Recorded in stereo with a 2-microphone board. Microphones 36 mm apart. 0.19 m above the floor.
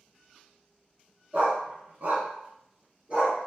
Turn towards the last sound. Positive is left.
turn(degrees=-35)  # may be behind; listen again after turning